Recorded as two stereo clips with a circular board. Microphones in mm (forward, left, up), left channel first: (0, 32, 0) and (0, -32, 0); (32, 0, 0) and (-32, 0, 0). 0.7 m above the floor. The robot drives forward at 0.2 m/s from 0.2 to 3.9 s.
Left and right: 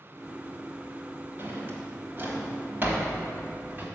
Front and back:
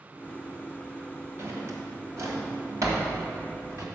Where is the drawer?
140° right, 1.3 m; by 3.9 s 150° right, 1.7 m.